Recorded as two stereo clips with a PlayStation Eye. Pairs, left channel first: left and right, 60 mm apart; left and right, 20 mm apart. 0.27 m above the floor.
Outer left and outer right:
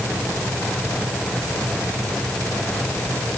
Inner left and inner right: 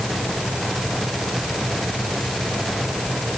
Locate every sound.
Only background noise.